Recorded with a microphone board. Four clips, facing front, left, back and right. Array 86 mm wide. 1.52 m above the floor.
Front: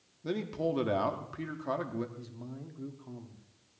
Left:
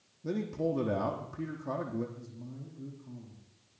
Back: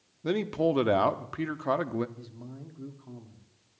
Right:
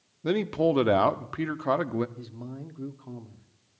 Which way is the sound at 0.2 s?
115° right.